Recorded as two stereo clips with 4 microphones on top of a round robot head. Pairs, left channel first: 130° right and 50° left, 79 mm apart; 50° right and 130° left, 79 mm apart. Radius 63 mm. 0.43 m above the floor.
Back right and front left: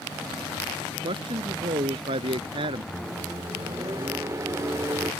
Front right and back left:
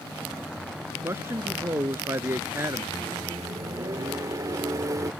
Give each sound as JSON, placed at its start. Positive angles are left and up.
{"t": 1.0, "sound": "a man speaking", "azimuth_deg": 70}
{"t": 2.9, "sound": "a microwave", "azimuth_deg": 95}